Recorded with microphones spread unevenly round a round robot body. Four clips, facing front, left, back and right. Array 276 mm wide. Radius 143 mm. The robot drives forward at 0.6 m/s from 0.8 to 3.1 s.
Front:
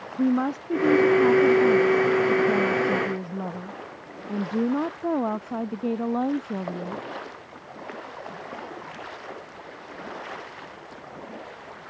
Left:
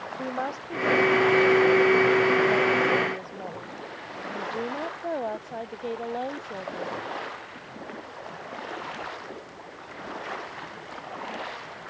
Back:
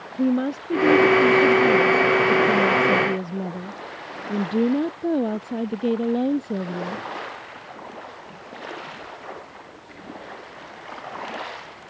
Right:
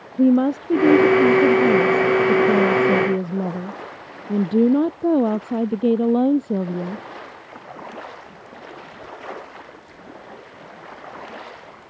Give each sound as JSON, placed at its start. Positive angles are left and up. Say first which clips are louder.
{"t": 0.2, "sound": "a woman speaking", "louder": "right 16 dB, back 1 dB", "azimuth_deg": -95}